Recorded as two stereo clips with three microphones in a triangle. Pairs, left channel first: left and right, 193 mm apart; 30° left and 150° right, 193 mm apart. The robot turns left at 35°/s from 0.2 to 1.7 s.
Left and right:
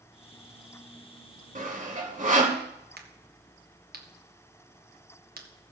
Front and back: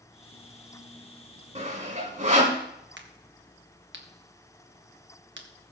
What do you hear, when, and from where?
1.6 s sawing: 110° right, 1.8 m; by 2.6 s 115° right, 1.8 m
3.0 s a crack: 130° right, 1.4 m